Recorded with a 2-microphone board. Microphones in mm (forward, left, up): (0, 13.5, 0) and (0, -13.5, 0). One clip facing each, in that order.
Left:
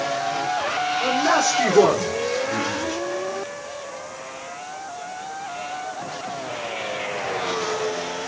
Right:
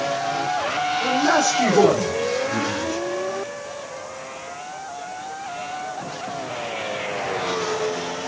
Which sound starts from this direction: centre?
A man speaking, at 1.0 s.